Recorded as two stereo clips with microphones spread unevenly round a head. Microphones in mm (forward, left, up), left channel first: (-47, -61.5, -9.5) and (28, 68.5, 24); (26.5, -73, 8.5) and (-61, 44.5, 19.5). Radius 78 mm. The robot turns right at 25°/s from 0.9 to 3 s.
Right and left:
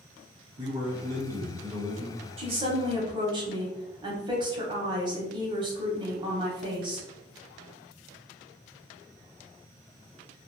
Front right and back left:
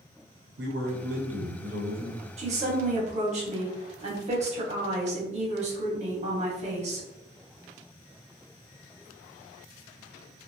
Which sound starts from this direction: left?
A woman speaking, at 2.4 s.